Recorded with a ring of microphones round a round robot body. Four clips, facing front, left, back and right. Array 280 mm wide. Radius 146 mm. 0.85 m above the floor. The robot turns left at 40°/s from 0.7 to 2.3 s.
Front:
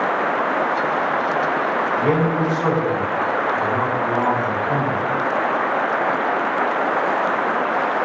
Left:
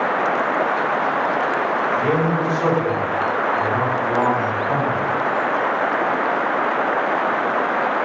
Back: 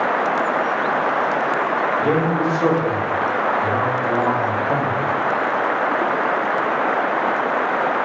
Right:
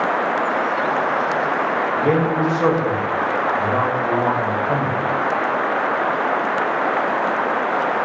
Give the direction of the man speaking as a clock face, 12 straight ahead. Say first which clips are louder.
Right 1 dB, front 1 dB; 3 o'clock.